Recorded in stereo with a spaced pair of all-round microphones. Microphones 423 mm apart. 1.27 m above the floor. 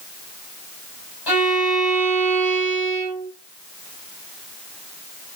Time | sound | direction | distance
1.3 | a violin | 70° left (ahead or behind) | 6.5 m